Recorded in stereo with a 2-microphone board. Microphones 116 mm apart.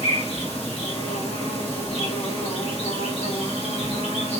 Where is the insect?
60° left (ahead or behind), 2.5 m.